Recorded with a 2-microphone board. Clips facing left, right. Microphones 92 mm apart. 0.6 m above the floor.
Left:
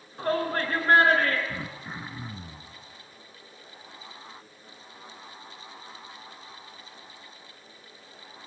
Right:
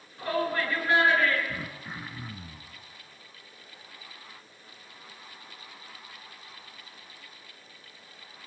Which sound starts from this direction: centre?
Throat clearing, at 1.5 s.